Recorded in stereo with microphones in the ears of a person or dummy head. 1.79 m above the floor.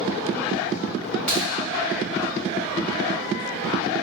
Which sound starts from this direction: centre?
A crack, at 1.3 s.